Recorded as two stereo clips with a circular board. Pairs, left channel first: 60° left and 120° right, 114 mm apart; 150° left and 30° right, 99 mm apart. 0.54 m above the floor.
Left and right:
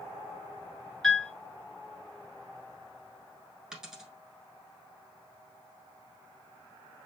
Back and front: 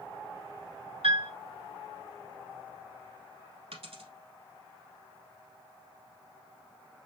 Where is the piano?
25° right, 3.5 m.